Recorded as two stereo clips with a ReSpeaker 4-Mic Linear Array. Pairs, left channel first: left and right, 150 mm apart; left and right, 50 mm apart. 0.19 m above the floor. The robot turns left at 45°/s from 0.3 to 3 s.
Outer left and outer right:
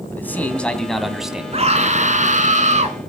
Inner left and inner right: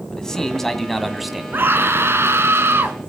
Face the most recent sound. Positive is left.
turn(degrees=-120)